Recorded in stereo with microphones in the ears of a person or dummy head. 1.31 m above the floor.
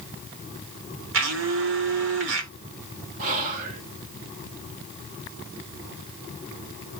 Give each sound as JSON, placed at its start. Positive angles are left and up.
{"t": 1.1, "sound": "a blender", "side_deg": -60, "distance_m": 0.9}
{"t": 3.2, "sound": "whispering", "side_deg": -50, "distance_m": 0.8}